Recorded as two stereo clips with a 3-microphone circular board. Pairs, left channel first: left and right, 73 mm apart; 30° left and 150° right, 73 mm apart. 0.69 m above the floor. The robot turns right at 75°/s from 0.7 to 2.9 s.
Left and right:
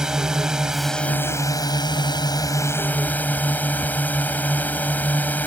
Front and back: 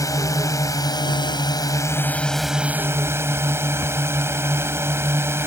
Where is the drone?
10° right; by 5.5 s 155° left.